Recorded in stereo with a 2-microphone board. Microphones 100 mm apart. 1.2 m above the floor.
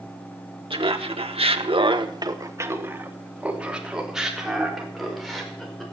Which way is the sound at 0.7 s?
65° right (ahead or behind).